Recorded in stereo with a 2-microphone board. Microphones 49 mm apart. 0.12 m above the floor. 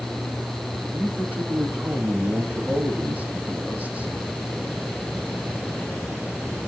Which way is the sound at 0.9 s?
30° right (ahead or behind).